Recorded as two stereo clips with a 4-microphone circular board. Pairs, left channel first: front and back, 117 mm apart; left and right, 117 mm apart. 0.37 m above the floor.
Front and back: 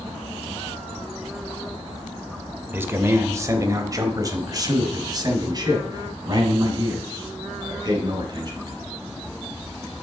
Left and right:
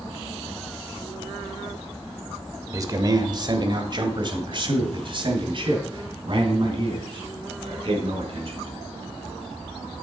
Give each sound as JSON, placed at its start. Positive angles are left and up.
{"t": 2.7, "sound": "a man speaking", "azimuth_deg": -120, "distance_m": 0.9}